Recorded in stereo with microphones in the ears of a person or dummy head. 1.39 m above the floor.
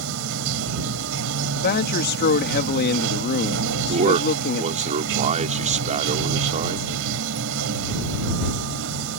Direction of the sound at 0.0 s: 65° right (ahead or behind).